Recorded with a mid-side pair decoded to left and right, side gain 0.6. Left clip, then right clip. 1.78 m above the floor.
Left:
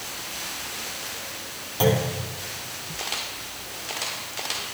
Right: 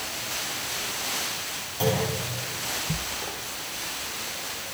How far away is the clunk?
About 4.5 m.